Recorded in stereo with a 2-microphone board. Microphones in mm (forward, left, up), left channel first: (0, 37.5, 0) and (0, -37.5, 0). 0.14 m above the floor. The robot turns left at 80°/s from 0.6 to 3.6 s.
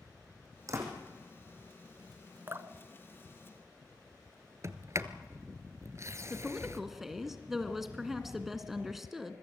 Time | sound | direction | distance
0.7 | a door slam | 50° right (ahead or behind) | 5 m
2.5 | dripping | 35° right (ahead or behind) | 1.0 m
4.6 | a sliding door | 40° right (ahead or behind) | 1.2 m
6.3 | a woman speaking | 5° right (ahead or behind) | 1.8 m